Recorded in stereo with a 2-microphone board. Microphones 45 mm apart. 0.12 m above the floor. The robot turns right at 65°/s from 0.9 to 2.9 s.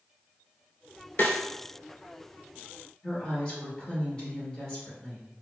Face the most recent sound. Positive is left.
turn(degrees=25)  # may be behind; listen again after turning